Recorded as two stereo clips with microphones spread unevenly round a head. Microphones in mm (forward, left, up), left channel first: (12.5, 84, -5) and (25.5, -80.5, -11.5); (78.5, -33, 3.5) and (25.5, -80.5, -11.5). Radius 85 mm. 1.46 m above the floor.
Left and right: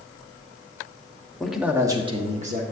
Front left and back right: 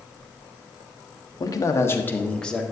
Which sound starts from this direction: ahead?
A man speaking, at 1.4 s.